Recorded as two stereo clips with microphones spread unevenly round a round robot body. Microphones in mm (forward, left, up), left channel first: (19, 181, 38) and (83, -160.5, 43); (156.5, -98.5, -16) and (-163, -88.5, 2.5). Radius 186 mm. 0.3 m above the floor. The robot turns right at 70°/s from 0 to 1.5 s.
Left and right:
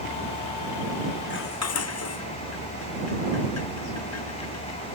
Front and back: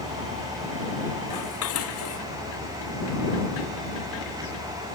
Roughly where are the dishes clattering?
Ahead left.